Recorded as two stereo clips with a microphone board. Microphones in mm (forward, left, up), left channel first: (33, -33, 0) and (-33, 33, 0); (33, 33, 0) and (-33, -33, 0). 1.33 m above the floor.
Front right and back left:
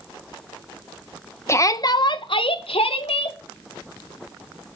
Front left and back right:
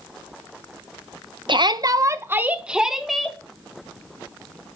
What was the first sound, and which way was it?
A shout, 105° right.